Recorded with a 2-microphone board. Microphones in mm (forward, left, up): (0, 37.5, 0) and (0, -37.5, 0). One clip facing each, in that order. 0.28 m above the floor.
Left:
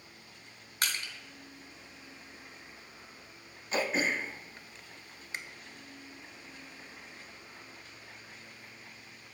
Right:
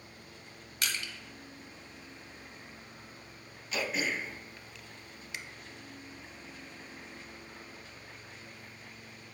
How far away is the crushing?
About 1.1 m.